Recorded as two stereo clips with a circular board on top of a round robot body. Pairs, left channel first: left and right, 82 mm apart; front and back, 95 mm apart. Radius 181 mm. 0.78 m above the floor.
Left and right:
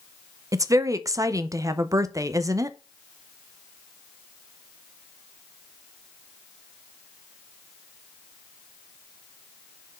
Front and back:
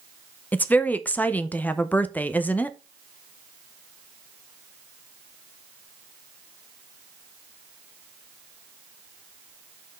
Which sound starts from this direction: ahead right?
A woman speaking, at 0.5 s.